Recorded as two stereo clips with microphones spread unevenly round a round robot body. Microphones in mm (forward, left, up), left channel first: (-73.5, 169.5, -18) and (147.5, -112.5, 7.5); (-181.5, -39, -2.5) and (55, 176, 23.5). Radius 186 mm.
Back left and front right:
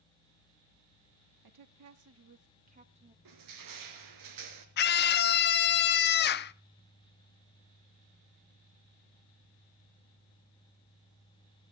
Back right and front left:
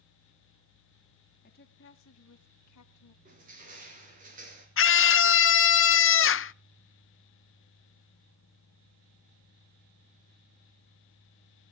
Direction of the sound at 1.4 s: 80° right.